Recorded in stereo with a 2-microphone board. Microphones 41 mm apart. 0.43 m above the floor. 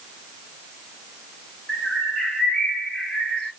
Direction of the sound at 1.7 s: 30° left (ahead or behind).